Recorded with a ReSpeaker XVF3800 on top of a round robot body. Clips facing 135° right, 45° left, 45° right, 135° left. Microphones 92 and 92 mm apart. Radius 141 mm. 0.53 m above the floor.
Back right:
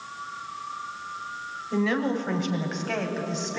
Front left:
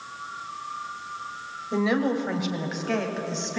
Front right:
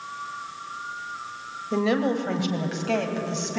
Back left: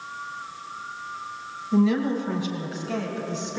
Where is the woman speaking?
25° right, 2.5 m; by 3.6 s 50° right, 4 m.